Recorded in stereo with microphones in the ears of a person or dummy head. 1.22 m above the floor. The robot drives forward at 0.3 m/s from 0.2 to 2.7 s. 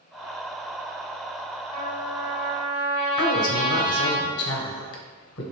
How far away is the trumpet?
About 1.4 m.